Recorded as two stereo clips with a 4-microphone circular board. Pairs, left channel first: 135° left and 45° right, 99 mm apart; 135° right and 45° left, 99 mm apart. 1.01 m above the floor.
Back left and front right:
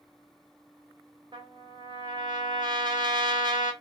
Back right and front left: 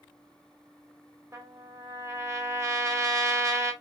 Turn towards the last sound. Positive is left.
turn(degrees=-10)